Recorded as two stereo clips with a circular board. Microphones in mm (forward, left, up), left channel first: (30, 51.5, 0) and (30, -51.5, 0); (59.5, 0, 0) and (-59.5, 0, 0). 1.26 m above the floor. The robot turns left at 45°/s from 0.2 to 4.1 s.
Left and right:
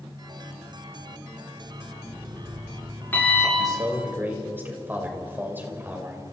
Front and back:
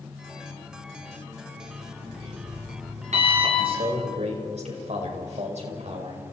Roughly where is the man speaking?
Behind right.